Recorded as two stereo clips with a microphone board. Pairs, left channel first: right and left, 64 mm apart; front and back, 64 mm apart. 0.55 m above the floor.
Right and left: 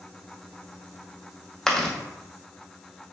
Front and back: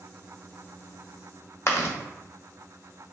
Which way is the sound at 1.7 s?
15° right.